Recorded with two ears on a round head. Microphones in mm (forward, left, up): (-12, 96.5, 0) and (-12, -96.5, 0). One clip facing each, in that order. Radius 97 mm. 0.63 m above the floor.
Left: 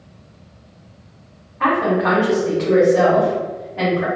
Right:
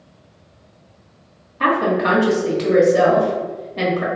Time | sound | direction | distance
1.6 | a woman speaking | 45° right (ahead or behind) | 1.1 m